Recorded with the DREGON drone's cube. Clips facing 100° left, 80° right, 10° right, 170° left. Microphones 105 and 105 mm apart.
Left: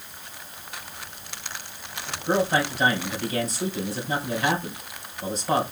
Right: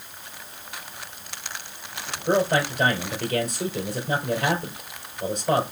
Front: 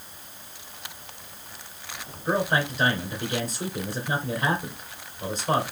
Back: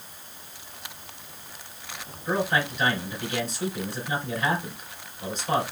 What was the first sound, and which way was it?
A man speaking, 60° right.